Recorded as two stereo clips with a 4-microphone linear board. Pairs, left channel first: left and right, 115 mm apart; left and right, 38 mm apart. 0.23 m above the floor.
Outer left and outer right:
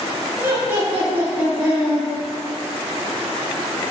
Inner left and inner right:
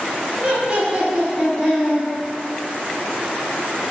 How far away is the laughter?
About 1.7 m.